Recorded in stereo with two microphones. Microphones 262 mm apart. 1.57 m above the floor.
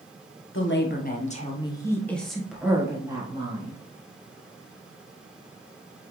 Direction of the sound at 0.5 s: 45° left (ahead or behind).